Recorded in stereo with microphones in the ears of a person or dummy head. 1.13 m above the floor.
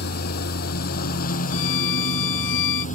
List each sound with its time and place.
0.0 s a lawn mower: 60° left (ahead or behind); by 3.0 s 45° left (ahead or behind)
1.5 s a violin: 70° left (ahead or behind)